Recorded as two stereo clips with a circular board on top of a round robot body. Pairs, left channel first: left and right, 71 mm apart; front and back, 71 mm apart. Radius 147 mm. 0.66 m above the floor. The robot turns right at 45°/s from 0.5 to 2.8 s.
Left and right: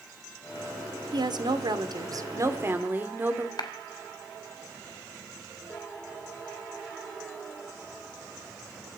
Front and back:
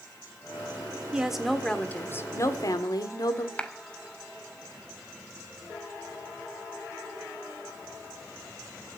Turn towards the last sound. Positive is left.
turn(degrees=75)